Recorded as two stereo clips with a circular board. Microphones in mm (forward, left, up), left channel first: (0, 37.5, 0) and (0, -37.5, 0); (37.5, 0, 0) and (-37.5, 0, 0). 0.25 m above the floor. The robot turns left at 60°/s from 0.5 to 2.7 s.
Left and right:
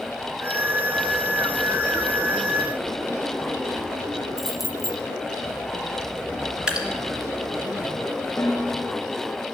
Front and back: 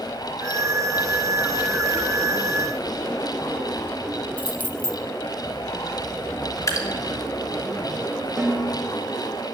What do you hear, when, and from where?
4.4 s keys jangling: 10° right, 0.6 m
6.7 s dripping: 15° right, 1.5 m
8.4 s a snare drum: 145° left, 1.5 m